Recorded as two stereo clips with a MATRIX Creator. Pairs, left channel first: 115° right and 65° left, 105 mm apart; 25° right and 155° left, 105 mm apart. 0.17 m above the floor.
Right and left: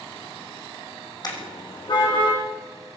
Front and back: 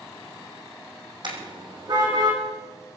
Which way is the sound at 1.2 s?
165° right.